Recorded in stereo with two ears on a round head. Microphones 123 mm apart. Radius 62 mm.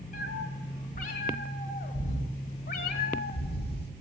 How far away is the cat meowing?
About 3 m.